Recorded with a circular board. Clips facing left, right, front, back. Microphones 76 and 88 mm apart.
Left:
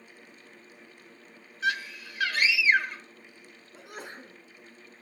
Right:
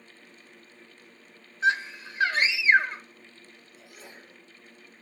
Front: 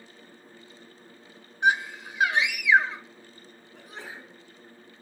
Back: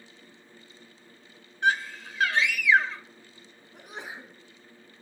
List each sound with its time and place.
1.6 s a scream: 55° right, 1.2 m
3.7 s a sneeze: 110° left, 4.5 m